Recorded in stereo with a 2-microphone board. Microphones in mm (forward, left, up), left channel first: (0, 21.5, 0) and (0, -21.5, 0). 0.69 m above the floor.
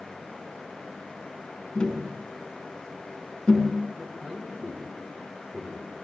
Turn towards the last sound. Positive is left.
turn(degrees=-10)  # may be behind; listen again after turning